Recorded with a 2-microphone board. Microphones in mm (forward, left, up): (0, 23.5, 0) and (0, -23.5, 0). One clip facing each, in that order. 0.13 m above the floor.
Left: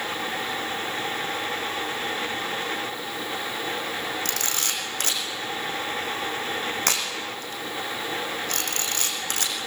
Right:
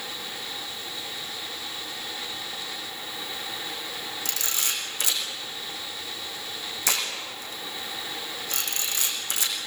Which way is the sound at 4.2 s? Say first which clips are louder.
Left 3 dB; 55° left (ahead or behind).